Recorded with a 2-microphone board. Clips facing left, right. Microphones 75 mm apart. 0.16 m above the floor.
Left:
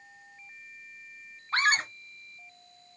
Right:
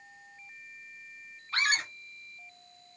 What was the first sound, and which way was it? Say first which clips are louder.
A scream: left 4 dB; 35° left (ahead or behind).